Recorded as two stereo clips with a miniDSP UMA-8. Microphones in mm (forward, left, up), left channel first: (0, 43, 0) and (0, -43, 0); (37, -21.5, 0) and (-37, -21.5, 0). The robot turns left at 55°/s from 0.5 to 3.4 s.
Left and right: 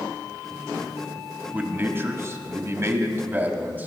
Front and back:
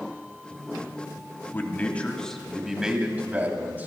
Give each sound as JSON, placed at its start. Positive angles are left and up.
{"t": 1.5, "sound": "a man speaking", "azimuth_deg": -35, "distance_m": 1.9}